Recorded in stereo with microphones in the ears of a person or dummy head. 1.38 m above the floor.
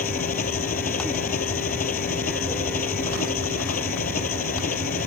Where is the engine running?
40° left (ahead or behind).